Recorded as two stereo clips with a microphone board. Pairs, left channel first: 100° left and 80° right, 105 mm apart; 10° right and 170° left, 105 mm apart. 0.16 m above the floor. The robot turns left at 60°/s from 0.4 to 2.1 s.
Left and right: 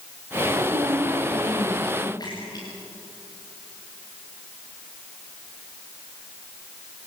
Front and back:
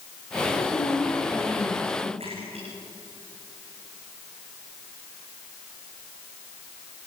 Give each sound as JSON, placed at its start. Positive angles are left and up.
{"t": 0.5, "sound": "a woman speaking", "azimuth_deg": -50, "distance_m": 5.5}
{"t": 2.2, "sound": "a splash", "azimuth_deg": 150, "distance_m": 8.0}